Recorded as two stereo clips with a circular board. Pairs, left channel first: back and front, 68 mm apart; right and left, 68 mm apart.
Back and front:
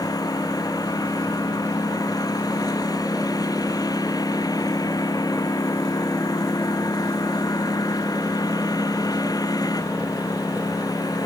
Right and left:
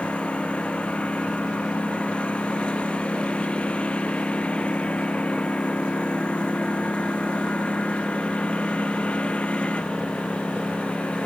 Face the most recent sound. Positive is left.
turn(degrees=-165)